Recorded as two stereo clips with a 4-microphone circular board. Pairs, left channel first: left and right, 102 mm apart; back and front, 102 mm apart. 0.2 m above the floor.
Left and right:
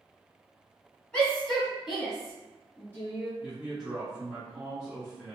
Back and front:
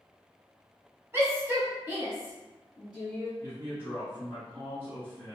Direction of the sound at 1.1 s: 30° left.